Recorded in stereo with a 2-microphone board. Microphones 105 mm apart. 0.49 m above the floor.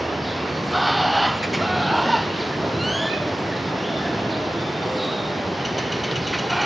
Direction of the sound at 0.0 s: Centre (ahead or behind).